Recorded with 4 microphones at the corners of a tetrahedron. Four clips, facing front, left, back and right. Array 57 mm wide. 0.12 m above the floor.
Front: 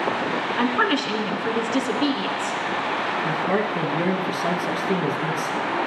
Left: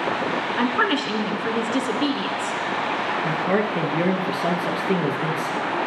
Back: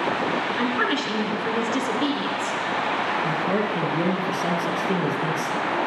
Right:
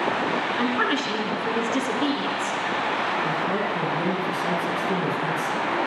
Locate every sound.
0.6 s a woman speaking: 55° left, 1.1 m
3.2 s a man speaking: 90° left, 1.8 m